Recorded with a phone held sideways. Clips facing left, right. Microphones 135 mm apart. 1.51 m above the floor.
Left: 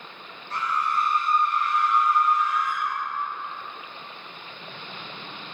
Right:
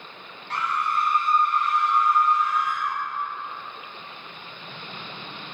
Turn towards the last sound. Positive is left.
turn(degrees=-25)  # may be behind; listen again after turning